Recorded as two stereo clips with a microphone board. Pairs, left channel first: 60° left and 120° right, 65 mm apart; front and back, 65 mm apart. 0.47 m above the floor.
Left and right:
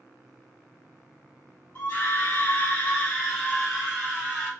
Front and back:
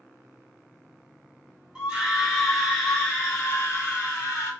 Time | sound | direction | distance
1.8 | a scream | 105° left | 1.1 m